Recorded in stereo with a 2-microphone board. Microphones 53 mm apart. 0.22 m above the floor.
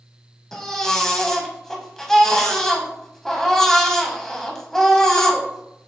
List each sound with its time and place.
0.5 s a baby crying: 10° left (ahead or behind), 0.9 m